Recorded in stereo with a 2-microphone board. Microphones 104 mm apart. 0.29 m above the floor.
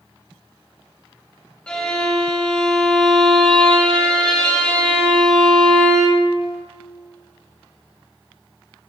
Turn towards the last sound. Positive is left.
turn(degrees=10)  # may be behind; listen again after turning